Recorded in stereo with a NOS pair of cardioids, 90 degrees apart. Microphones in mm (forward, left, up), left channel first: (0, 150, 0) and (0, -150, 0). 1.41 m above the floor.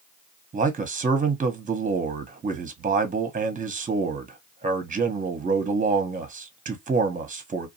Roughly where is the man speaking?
Ahead right.